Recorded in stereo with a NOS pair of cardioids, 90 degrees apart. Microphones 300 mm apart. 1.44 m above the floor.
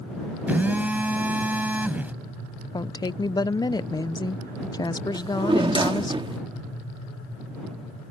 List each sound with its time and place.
0.5 s a phone buzzing: 5° right
2.7 s a woman speaking: 15° left
5.1 s a drawer: 15° right